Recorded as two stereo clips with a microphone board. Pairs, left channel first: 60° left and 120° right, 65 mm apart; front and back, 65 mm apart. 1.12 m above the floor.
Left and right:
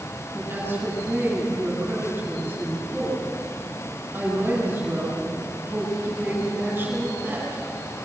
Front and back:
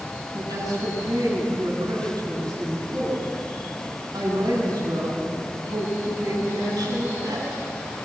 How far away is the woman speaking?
About 10 m.